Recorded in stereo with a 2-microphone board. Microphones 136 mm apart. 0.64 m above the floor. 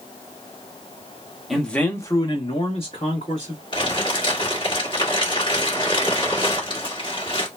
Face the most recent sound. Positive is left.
turn(degrees=35)  # may be behind; listen again after turning